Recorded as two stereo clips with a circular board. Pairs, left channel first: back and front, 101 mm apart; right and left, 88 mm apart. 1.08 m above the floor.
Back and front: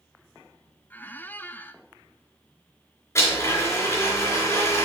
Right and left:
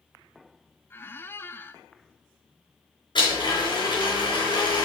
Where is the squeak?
130° right, 0.6 m.